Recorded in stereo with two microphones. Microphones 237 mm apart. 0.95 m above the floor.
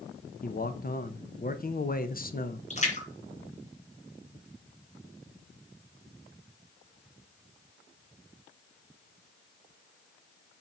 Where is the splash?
30° left (ahead or behind), 2.5 m.